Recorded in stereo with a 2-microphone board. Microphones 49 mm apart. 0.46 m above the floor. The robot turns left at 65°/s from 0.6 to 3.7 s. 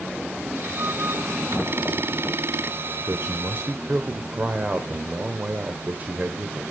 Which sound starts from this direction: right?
A man speaking, at 3.0 s.